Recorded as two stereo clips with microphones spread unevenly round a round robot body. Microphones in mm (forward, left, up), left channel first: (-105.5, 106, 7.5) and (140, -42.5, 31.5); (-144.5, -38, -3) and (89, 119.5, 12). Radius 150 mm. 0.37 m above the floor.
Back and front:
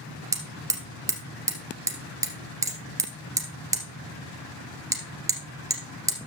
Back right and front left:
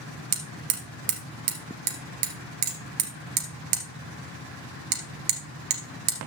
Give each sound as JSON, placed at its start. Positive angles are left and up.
{"t": 0.3, "sound": "hammering", "azimuth_deg": 50, "distance_m": 2.0}